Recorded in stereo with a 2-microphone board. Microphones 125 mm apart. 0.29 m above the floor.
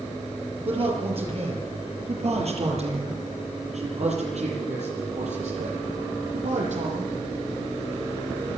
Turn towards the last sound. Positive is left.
turn(degrees=-75)  # may be behind; listen again after turning